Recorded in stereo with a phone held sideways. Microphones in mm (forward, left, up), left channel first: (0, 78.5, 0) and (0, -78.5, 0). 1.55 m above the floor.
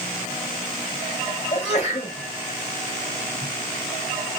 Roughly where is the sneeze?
Left.